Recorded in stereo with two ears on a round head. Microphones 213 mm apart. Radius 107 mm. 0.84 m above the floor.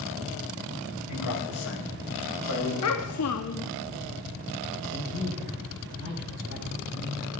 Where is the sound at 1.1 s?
65° left (ahead or behind), 6 m.